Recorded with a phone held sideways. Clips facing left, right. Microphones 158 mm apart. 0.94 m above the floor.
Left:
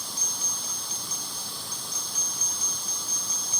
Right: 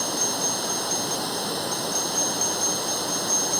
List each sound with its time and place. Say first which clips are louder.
0.0 s running water: right 15 dB; 75° right (ahead or behind)